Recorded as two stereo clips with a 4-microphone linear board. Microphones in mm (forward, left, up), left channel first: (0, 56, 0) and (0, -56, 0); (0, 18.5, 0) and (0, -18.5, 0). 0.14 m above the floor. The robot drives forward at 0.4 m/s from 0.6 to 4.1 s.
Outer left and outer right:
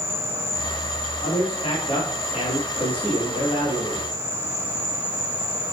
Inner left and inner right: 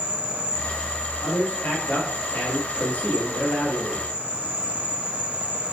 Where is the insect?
60° left (ahead or behind), 2.5 m; by 5.7 s 55° left (ahead or behind), 2.5 m.